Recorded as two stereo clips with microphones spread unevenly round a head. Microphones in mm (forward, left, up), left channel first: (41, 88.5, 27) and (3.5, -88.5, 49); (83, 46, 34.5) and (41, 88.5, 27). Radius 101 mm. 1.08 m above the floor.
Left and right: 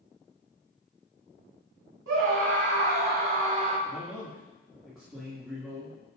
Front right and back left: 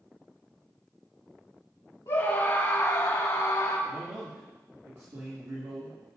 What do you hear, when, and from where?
2.1 s a scream: 90° right, 3 m; by 3.8 s 45° right, 3 m
3.9 s a man speaking: 170° left, 2.5 m